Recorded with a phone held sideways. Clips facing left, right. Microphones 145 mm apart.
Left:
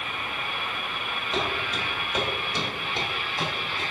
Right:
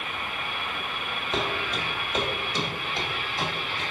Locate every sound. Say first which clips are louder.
1.3 s footsteps: even; 10° right (ahead or behind), 1.3 m; by 3.8 s 35° left (ahead or behind), 1.8 m